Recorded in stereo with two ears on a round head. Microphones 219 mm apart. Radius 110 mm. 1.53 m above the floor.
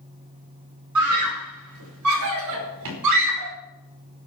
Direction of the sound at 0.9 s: 85° right.